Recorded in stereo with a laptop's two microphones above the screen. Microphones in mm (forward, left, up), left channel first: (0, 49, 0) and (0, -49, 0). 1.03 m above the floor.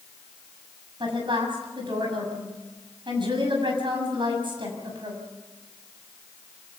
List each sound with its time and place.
1.0 s a woman speaking: 55° right (ahead or behind), 6 m